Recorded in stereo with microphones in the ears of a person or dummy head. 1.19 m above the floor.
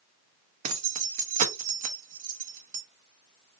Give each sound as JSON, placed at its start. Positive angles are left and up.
{"t": 0.6, "sound": "keys jangling", "side_deg": -45, "distance_m": 0.7}